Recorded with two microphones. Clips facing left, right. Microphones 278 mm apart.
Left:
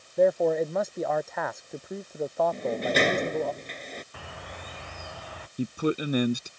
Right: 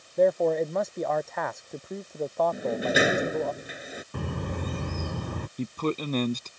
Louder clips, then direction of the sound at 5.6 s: Left 3 dB; 10° left (ahead or behind).